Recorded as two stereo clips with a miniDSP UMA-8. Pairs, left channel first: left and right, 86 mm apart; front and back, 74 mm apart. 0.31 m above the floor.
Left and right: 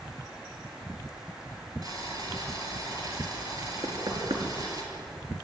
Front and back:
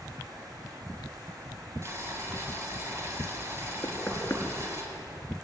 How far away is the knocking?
About 5 m.